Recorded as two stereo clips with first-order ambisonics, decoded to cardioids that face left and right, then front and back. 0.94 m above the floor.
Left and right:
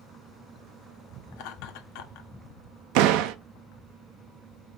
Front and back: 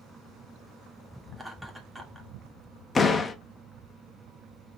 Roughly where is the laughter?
Left.